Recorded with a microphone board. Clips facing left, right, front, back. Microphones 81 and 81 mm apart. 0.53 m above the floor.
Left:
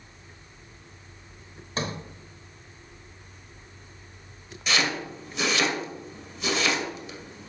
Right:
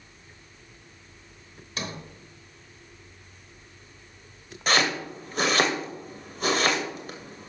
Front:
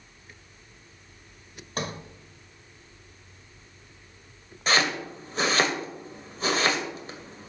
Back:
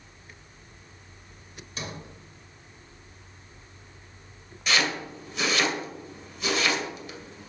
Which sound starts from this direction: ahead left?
A sliding door, at 1.8 s.